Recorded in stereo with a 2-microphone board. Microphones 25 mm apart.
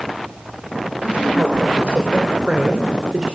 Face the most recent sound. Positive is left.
turn(degrees=-25)  # may be behind; listen again after turning